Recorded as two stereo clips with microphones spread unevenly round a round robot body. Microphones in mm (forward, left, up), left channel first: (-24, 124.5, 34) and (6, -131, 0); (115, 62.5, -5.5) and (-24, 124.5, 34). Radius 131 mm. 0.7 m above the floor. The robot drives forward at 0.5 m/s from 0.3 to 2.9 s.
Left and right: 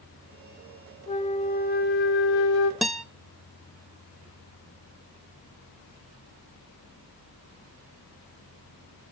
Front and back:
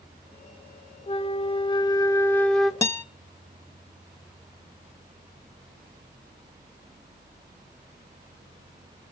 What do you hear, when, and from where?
1.1 s a flute: 30° left, 1.3 m; by 2.7 s 70° left, 0.7 m
2.8 s a guitar: 5° right, 0.6 m